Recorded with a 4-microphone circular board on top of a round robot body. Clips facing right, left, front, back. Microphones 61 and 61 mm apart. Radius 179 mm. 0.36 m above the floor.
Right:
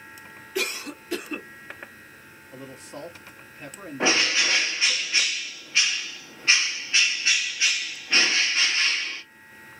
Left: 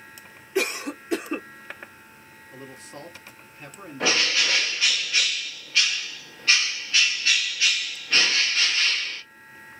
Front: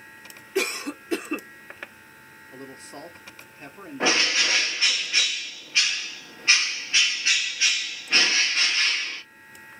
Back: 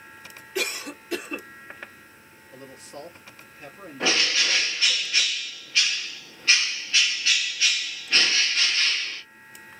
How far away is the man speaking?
About 1.4 m.